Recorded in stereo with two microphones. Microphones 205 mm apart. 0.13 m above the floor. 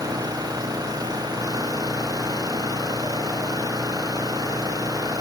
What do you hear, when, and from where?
0.0 s an engine running: 20° right (ahead or behind)